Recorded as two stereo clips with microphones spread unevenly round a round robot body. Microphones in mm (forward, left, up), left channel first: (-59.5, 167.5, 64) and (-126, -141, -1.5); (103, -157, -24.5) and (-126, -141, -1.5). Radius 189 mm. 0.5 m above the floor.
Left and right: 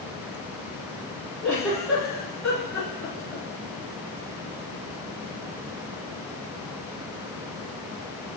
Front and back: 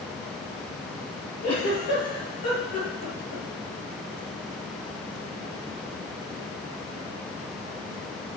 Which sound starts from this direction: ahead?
A giggle, at 1.4 s.